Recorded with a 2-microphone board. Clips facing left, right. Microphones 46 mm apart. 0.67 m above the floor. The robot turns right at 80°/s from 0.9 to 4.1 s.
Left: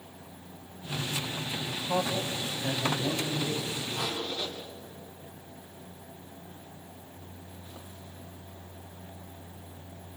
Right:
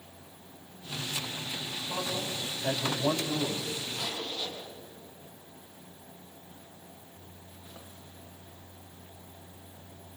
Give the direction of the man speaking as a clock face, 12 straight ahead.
9 o'clock.